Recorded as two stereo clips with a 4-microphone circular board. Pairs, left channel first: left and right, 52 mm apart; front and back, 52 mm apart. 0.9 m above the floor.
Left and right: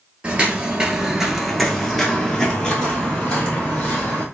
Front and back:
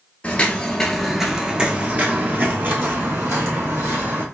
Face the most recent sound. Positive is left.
turn(degrees=155)